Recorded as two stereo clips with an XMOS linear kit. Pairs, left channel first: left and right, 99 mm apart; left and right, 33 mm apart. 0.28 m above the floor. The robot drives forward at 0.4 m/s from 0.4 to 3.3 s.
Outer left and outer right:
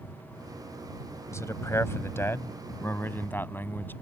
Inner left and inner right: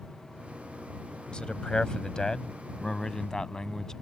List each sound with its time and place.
1.3 s a man speaking: 30° left (ahead or behind); by 3.9 s 20° left (ahead or behind)